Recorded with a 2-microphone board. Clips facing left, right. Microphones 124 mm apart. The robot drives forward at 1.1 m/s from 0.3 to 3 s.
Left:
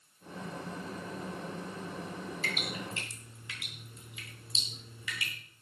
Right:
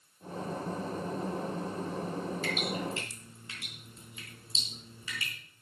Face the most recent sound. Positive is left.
turn(degrees=-35)  # may be behind; listen again after turning